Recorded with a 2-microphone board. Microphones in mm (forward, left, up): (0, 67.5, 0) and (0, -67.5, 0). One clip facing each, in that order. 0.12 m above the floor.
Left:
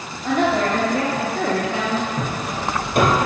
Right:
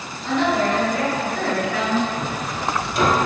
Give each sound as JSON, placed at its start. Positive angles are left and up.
{"t": 0.2, "sound": "a woman speaking", "side_deg": 50, "distance_m": 2.5}
{"t": 2.2, "sound": "hammering", "side_deg": 60, "distance_m": 1.6}